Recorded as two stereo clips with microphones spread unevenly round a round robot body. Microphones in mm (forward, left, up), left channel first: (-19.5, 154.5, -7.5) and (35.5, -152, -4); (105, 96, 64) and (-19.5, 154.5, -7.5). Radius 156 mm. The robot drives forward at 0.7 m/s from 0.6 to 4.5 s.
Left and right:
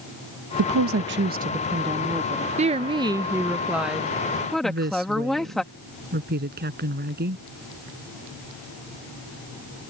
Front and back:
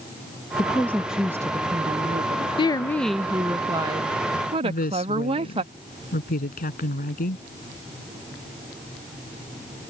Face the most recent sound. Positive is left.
turn(degrees=-20)